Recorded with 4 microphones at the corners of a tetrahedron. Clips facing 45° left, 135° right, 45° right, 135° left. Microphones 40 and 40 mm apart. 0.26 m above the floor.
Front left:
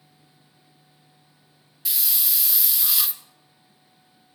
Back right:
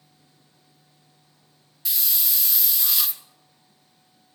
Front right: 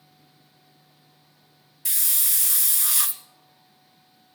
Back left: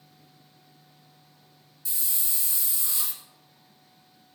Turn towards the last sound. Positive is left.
turn(degrees=-45)